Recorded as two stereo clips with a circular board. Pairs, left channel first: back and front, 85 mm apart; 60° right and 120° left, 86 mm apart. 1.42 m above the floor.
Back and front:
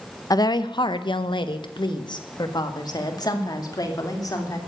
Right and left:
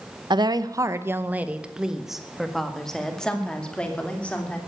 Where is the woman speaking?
140° left, 0.8 m; by 4.6 s 135° right, 3 m.